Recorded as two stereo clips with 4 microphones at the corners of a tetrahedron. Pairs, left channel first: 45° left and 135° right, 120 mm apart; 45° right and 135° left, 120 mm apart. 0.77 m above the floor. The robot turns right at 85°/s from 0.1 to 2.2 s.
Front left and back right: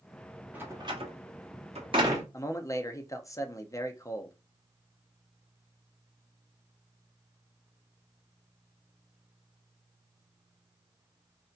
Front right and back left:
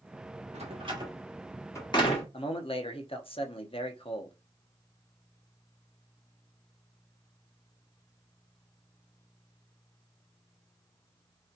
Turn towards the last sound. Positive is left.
turn(degrees=-15)